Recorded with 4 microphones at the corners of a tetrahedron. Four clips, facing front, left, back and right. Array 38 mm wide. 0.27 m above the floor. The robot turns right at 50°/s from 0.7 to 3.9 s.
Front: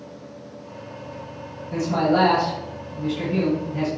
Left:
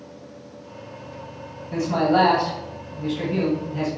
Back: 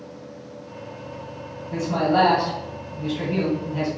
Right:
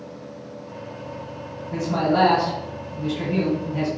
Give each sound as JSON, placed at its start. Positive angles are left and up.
{"t": 1.7, "sound": "a man speaking", "azimuth_deg": 90, "distance_m": 2.0}